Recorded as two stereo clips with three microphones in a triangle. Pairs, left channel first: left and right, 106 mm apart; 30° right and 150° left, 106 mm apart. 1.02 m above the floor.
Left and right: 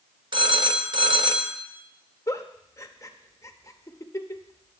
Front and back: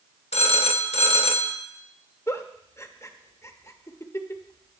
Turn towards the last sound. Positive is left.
turn(degrees=30)